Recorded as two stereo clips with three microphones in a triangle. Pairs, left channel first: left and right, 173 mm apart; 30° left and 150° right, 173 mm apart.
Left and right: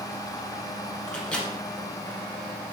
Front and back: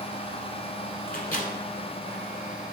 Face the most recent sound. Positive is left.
turn(degrees=5)